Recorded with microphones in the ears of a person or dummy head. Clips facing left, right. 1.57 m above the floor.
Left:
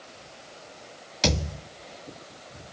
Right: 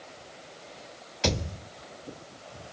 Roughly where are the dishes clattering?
I don't hear dishes clattering.